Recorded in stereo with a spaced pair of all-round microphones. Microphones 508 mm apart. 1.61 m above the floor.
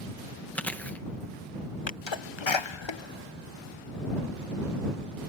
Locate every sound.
0.6 s chewing: 5° left (ahead or behind)
1.9 s a sneeze: 60° left (ahead or behind)